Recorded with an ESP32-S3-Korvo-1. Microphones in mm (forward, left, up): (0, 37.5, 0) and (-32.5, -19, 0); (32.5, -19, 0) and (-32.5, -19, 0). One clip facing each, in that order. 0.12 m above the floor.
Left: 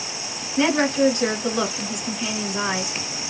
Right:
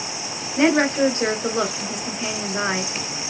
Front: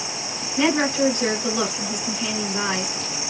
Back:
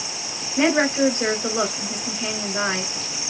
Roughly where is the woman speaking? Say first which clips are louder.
Right 2 dB, back 1 dB; behind right.